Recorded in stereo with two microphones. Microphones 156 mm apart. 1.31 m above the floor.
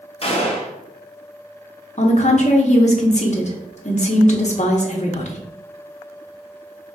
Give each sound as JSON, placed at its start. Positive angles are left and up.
{"t": 0.2, "sound": "a gunshot", "side_deg": 40, "distance_m": 0.8}
{"t": 2.0, "sound": "a woman speaking", "side_deg": 45, "distance_m": 0.9}